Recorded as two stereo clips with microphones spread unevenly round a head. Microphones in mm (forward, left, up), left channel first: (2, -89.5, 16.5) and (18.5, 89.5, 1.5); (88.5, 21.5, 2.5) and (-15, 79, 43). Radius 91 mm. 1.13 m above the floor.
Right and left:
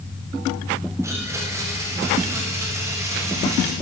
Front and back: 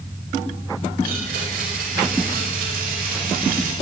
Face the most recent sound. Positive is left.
turn(degrees=160)